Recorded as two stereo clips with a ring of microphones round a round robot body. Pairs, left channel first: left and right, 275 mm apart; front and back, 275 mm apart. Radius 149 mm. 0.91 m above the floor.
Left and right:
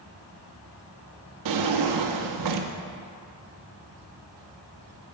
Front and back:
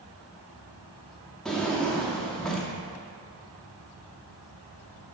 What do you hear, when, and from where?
1.4 s a drawer: 90° right, 0.7 m